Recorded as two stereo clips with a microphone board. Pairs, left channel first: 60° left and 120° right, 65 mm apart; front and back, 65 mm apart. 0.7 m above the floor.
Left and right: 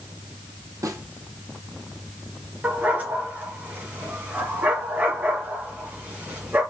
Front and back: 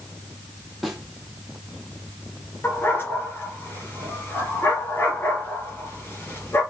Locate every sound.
0.8 s a snare drum: 90° right, 3.5 m
2.6 s a dog barking: 55° right, 4 m